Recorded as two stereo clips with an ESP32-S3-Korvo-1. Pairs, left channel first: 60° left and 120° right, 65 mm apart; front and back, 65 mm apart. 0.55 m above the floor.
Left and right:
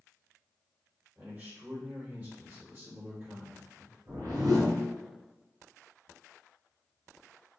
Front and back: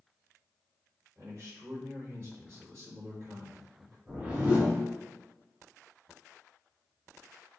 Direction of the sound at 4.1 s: 115° right.